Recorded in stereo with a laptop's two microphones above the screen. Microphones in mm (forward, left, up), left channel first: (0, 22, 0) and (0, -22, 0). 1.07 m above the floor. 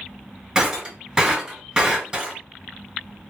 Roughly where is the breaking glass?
Centre.